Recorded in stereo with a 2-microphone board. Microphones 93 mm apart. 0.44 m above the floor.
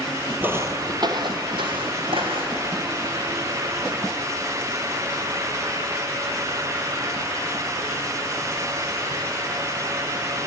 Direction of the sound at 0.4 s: 20° right (ahead or behind).